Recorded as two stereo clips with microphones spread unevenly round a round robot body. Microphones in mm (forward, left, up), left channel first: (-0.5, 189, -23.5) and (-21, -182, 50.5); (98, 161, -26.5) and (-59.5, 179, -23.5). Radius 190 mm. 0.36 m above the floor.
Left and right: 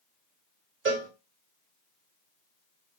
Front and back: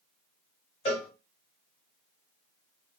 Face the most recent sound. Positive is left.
turn(degrees=-35)